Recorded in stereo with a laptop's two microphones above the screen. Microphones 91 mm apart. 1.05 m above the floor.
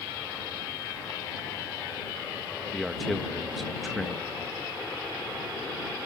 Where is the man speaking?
Centre (ahead or behind).